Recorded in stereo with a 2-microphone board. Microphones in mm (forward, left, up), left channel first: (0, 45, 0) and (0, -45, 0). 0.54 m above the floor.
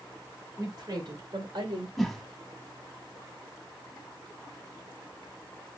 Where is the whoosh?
Centre (ahead or behind), 0.6 m.